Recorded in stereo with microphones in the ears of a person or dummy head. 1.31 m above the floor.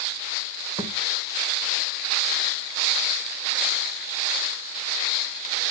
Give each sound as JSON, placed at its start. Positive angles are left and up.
{"t": 0.8, "sound": "a thud", "side_deg": -25, "distance_m": 2.5}